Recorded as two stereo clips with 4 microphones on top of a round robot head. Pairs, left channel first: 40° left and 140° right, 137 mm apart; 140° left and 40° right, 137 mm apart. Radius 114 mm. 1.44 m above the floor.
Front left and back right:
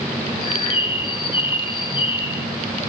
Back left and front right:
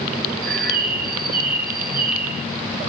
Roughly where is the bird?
Ahead.